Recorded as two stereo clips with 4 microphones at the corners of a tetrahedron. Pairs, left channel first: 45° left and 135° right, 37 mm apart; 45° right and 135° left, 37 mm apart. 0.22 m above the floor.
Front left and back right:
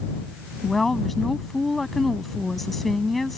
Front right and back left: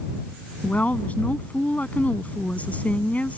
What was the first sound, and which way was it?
A woman speaking, 40° right.